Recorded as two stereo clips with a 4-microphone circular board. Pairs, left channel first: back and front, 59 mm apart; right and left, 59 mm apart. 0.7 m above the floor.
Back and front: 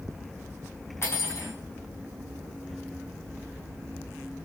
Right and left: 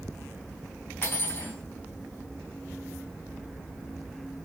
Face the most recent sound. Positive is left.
turn(degrees=-140)